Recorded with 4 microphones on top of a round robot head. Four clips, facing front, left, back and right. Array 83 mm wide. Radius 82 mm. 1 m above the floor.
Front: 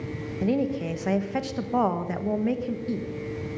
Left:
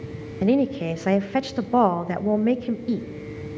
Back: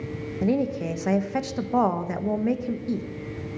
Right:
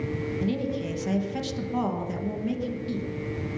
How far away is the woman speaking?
About 1.2 m.